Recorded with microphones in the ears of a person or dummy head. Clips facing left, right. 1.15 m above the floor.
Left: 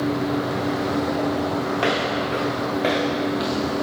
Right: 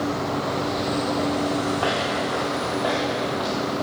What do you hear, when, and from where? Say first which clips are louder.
1.8 s footsteps: left 2 dB; 35° left (ahead or behind), 4 m